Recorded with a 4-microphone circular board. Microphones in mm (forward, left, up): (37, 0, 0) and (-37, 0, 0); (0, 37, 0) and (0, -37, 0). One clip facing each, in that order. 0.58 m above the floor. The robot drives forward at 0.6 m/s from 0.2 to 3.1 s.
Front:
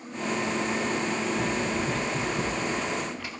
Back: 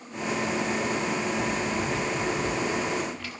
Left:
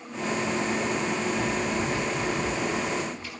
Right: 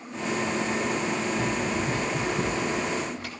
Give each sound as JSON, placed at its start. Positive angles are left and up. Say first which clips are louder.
{"t": 1.3, "sound": "running footsteps", "louder": "even, even", "azimuth_deg": -45, "distance_m": 5.5}